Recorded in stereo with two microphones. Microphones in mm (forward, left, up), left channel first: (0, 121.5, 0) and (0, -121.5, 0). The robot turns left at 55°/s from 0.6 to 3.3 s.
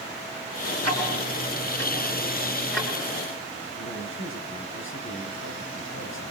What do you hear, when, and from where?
0.8 s ticking: 75° right (ahead or behind), 4.5 m; by 2.9 s 10° left (ahead or behind), 4.5 m
3.8 s a man speaking: 55° left (ahead or behind), 3.5 m